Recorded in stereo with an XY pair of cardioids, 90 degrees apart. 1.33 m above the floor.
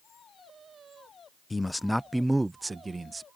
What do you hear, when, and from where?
1.5 s a man speaking: 20° left; by 3.3 s 35° right